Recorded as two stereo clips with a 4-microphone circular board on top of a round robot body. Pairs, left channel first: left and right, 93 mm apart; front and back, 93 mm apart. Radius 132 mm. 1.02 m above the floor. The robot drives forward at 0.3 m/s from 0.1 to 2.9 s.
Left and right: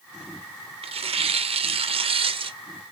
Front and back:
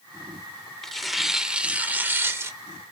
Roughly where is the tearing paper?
Right.